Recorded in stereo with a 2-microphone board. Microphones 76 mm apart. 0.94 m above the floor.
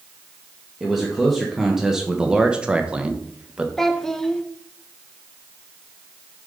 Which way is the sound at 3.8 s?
5° left (ahead or behind).